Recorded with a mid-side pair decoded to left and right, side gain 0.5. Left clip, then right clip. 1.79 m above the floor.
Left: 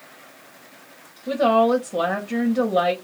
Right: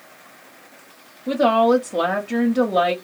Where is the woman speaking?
15° right, 0.9 m.